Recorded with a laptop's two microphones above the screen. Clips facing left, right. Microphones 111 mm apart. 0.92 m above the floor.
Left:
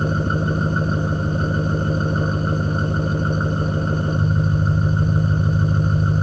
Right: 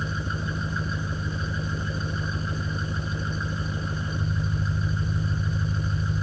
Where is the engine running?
55° left (ahead or behind).